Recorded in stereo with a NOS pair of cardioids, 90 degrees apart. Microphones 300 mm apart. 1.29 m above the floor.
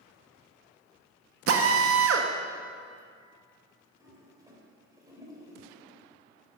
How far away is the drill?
About 1.4 m.